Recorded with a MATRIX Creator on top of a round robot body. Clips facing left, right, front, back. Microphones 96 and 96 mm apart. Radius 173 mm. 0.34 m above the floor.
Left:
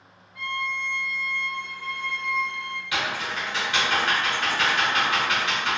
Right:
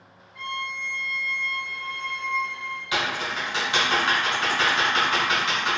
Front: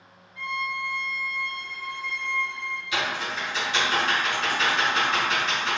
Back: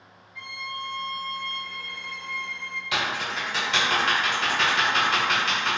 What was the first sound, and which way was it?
A violin, straight behind.